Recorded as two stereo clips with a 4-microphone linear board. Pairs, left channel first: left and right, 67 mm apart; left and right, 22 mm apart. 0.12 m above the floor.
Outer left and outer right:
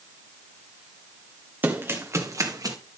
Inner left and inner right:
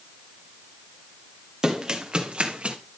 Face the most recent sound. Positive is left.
turn(degrees=-65)  # may be behind; listen again after turning